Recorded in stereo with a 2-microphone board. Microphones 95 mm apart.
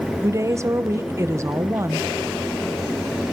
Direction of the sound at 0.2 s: 30° right (ahead or behind).